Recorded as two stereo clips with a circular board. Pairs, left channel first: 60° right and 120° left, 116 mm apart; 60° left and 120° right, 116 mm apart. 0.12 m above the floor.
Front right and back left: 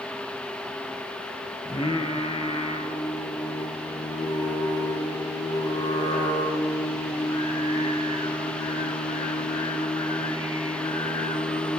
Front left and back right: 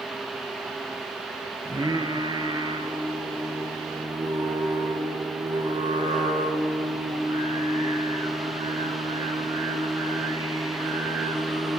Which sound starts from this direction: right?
Singing, at 1.6 s.